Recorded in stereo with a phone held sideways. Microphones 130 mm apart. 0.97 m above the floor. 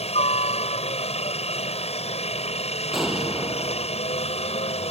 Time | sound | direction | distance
0.0 | a helicopter | 50° left (ahead or behind) | ?
2.9 | an explosion | centre (ahead or behind) | ?